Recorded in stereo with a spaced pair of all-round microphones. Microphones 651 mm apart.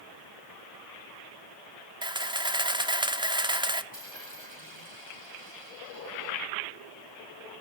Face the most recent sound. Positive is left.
turn(degrees=-65)  # may be behind; listen again after turning